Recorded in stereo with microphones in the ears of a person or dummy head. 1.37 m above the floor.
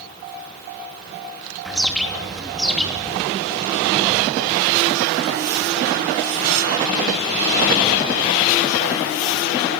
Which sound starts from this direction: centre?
A bird, at 1.6 s.